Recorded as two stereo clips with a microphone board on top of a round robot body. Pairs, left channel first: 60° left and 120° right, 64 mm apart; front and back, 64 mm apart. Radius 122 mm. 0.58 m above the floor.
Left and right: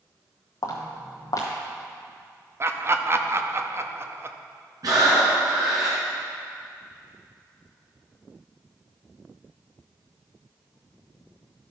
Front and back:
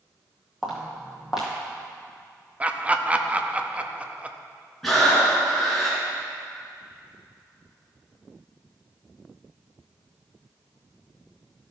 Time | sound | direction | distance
0.6 | footsteps | 95° left | 1.0 m
2.6 | laughter | 120° right | 0.8 m
4.8 | breathing | 85° right | 1.9 m